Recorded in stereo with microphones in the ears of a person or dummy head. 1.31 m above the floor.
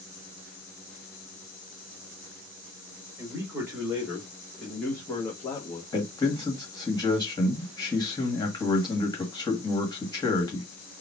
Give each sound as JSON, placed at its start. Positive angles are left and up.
{"t": 3.2, "sound": "a man speaking", "side_deg": -10, "distance_m": 1.8}
{"t": 5.9, "sound": "a man speaking", "side_deg": 25, "distance_m": 1.7}